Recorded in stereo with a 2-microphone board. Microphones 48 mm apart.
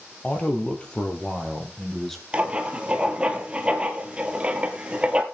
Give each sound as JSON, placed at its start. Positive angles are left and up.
{"t": 0.2, "sound": "a man speaking", "side_deg": 30, "distance_m": 2.5}
{"t": 2.3, "sound": "writing", "side_deg": -20, "distance_m": 1.6}